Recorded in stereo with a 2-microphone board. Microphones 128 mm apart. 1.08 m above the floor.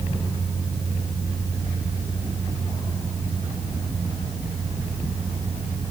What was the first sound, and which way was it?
Only background noise.